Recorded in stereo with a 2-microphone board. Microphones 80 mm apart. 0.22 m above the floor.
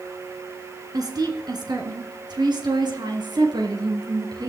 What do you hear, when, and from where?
0.9 s a woman speaking: 55° right (ahead or behind), 3.5 m; by 4.5 s 60° right (ahead or behind), 4.5 m